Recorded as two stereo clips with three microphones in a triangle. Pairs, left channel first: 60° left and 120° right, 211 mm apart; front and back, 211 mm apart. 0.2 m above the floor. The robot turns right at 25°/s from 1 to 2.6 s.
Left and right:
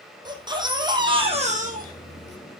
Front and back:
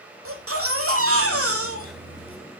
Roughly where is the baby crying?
Behind.